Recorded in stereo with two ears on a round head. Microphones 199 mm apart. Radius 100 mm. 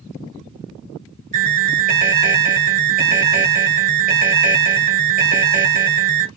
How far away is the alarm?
About 1.2 m.